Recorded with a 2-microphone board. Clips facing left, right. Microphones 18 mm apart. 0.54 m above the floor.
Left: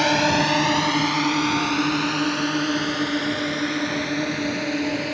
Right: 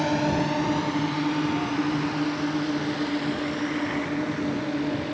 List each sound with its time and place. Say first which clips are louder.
0.0 s a drone: left 5 dB; 55° left (ahead or behind); by 5.1 s 80° left